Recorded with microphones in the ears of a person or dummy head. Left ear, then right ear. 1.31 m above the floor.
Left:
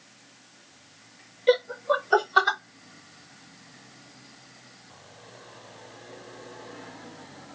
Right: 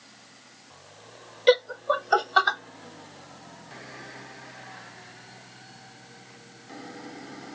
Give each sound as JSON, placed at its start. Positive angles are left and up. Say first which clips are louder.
{"t": 1.5, "sound": "laughter", "louder": "right 1 dB", "side_deg": -50, "distance_m": 0.7}